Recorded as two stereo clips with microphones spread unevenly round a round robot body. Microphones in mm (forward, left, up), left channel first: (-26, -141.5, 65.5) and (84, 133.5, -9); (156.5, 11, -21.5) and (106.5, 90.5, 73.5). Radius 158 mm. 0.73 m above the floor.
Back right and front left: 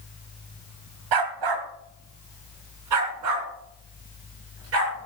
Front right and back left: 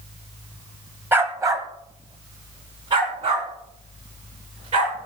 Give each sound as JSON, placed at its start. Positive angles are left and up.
{"t": 1.1, "sound": "a dog barking", "azimuth_deg": 60, "distance_m": 1.9}